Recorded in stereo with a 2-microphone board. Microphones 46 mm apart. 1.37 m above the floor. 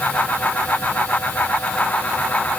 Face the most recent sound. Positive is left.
No sound to turn to.